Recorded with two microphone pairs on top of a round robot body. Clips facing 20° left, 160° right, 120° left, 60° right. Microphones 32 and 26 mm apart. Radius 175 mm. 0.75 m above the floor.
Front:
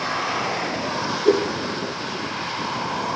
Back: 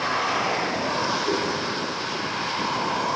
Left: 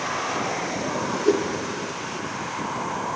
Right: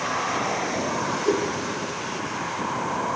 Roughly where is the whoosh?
Ahead left.